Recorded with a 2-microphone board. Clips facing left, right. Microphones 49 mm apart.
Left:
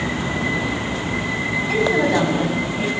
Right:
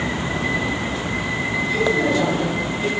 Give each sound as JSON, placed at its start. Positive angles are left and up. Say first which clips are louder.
{"t": 1.7, "sound": "a woman speaking", "louder": "left 2 dB", "side_deg": 65, "distance_m": 8.5}